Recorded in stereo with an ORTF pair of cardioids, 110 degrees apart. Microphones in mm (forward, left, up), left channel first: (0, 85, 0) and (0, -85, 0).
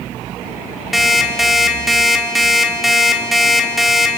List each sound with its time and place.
0.9 s an alarm clock: straight ahead, 2 m